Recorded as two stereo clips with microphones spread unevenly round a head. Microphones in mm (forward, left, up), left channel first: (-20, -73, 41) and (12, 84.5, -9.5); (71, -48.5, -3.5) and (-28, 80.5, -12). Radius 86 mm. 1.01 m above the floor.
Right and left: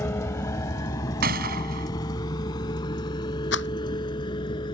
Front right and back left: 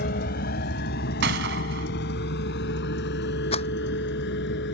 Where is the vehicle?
30° right; by 4.8 s 40° right.